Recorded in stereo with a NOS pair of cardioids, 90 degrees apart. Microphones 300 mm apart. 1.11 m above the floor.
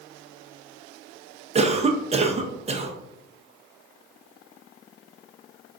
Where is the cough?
20° right, 0.8 m.